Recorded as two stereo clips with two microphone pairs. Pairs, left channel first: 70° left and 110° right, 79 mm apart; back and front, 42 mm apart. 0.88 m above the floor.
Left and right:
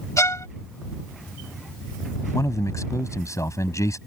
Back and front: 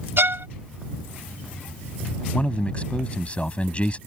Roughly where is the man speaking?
Behind left.